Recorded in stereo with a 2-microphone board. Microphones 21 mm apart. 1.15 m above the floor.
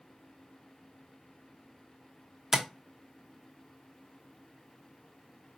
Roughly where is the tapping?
Centre.